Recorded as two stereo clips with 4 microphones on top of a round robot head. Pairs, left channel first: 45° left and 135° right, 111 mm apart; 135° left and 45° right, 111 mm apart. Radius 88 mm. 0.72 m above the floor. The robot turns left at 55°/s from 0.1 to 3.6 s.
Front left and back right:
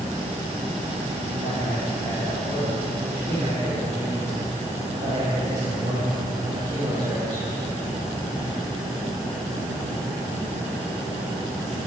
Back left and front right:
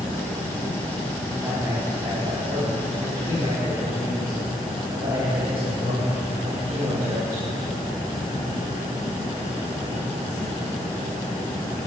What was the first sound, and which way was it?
A man speaking, 45° left.